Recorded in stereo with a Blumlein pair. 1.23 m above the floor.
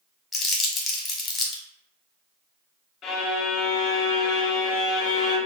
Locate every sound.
0.3 s crumpling: 15° left, 0.9 m
3.0 s a violin: 30° left, 0.6 m